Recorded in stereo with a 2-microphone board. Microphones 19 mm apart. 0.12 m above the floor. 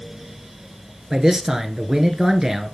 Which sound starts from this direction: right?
A man speaking, at 1.1 s.